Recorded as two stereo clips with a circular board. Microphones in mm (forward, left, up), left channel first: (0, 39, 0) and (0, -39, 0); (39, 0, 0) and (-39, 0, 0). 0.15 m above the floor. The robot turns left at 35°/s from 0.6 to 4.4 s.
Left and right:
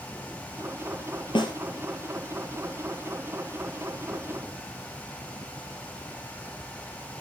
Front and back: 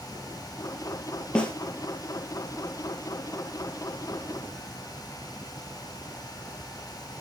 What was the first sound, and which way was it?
A snare drum, 80° left.